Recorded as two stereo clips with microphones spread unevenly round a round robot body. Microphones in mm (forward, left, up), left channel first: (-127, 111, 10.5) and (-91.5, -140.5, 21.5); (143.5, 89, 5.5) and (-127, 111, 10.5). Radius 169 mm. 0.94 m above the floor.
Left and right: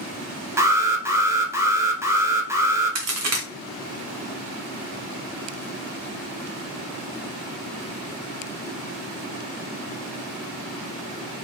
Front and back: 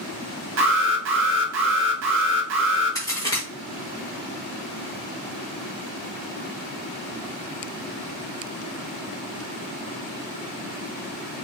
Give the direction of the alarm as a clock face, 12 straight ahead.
5 o'clock.